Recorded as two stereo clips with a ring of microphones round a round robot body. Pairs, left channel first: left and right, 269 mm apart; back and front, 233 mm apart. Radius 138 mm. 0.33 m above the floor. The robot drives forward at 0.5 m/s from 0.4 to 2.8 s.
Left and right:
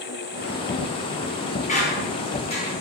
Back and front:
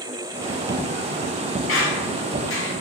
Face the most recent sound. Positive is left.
turn(degrees=160)